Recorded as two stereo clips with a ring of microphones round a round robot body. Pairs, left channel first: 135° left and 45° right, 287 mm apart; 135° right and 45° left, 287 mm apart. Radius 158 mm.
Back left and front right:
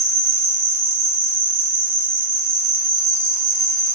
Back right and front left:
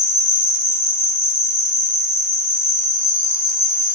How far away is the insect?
About 2.5 m.